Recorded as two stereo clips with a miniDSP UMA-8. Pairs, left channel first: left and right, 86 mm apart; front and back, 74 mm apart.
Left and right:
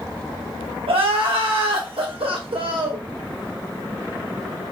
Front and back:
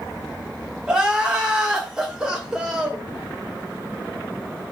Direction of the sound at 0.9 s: 100° right.